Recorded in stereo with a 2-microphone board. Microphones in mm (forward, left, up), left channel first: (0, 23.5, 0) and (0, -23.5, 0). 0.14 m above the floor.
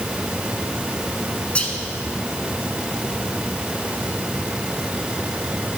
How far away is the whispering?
About 1.2 m.